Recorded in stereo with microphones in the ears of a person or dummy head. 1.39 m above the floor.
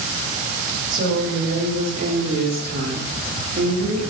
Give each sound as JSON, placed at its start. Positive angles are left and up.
{"t": 0.9, "sound": "a woman speaking", "side_deg": -60, "distance_m": 5.0}